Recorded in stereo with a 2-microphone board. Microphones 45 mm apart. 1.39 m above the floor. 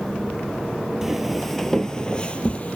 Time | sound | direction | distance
1.0 | footsteps | 10° right (ahead or behind) | 1.5 m